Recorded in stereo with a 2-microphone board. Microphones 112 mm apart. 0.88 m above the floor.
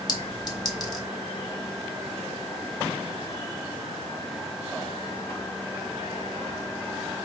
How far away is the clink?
About 1.0 m.